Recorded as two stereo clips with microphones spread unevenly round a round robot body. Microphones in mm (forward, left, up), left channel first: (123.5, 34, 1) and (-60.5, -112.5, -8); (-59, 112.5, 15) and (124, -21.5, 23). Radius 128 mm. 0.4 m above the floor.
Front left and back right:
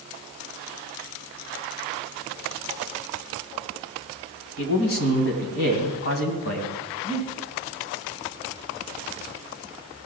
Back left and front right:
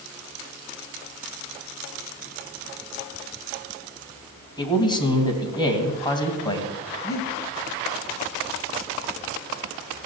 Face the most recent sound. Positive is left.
turn(degrees=65)